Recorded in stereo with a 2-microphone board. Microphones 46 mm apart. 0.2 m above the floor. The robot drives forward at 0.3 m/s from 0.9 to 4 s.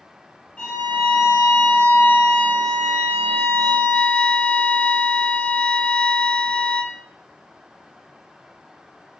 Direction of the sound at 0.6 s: 25° left (ahead or behind).